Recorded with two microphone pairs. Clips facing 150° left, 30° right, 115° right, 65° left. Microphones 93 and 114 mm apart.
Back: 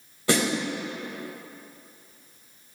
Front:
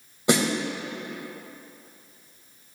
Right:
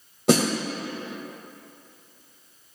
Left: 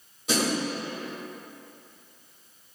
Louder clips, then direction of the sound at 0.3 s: Front 2 dB, right 7 dB; 100° right.